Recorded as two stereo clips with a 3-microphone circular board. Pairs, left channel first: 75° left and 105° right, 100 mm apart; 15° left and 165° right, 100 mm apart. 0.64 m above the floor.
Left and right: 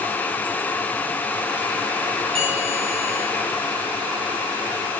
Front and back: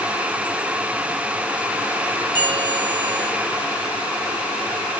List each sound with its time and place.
2.4 s a bell: 130° right, 8 m